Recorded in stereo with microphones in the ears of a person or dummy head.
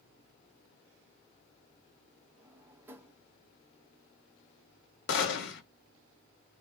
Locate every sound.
2.4 s a drawer: 15° right (ahead or behind), 1.1 m
5.1 s a gunshot: 75° left (ahead or behind), 1.5 m